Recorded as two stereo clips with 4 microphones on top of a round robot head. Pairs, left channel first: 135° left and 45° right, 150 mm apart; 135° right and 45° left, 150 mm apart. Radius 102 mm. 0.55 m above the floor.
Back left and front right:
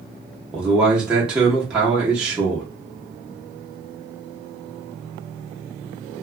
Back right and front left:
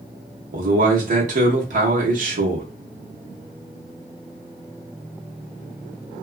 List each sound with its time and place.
0.5 s a man speaking: 40° left, 0.9 m